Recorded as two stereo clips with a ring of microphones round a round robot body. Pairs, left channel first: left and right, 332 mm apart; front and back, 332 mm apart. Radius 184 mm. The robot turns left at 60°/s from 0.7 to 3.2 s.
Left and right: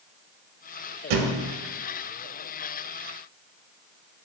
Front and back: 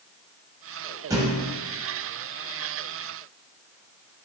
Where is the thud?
100° right, 0.7 m; by 1.5 s 125° right, 0.7 m.